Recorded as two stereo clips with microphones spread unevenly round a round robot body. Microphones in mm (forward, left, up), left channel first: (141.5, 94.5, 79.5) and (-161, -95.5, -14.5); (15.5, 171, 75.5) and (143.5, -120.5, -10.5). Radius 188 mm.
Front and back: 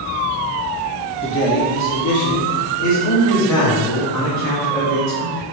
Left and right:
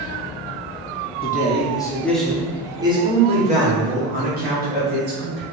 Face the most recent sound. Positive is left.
turn(degrees=-20)